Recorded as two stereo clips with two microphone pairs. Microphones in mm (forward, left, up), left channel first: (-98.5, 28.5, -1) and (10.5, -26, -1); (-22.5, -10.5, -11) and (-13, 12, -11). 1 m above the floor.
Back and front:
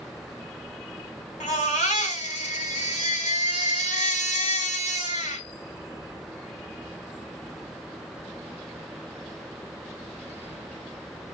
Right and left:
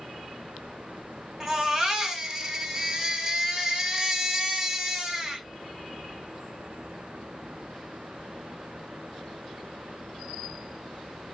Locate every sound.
1.4 s a baby crying: 130° left, 1.2 m